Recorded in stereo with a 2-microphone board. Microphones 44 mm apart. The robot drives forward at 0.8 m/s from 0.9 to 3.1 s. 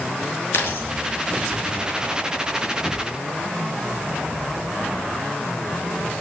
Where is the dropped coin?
70° left (ahead or behind), 5.5 m.